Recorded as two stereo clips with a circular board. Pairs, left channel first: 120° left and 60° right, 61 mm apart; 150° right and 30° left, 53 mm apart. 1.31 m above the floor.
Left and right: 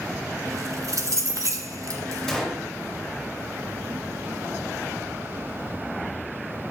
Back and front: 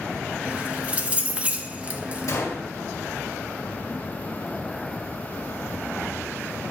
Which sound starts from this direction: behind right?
A gunshot, at 2.3 s.